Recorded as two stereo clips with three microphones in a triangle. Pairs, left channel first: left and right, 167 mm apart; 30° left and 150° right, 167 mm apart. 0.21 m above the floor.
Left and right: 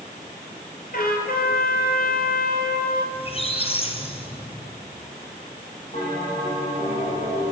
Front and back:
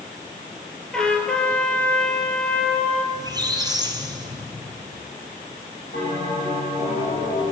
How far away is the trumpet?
About 2 m.